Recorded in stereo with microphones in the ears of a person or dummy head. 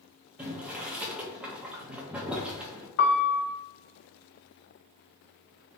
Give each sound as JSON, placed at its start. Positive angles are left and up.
{"t": 0.4, "sound": "boiling", "side_deg": -5, "distance_m": 1.1}
{"t": 3.0, "sound": "a piano", "side_deg": 60, "distance_m": 0.7}